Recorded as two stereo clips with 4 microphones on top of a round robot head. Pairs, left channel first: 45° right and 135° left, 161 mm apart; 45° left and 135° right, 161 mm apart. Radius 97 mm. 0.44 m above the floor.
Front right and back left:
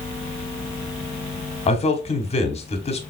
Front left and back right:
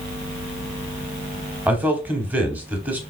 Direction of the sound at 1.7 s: 60° right.